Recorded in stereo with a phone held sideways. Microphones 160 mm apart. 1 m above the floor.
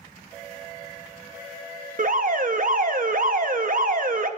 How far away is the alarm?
About 0.6 m.